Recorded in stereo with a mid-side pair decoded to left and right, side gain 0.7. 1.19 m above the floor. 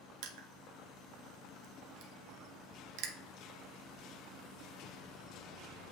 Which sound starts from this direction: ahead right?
Crushing, at 0.2 s.